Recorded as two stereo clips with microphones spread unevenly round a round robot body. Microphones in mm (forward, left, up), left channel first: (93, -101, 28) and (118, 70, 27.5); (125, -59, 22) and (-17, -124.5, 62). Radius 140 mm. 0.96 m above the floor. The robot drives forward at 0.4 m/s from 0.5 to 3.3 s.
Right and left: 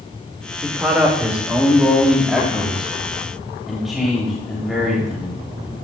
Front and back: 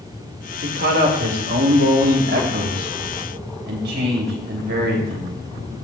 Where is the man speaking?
165° left, 1.8 m; by 5.4 s 170° left, 3 m.